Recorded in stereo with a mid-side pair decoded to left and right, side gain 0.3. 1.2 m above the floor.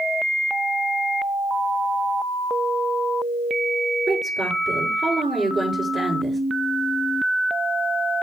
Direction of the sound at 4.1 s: 30° right.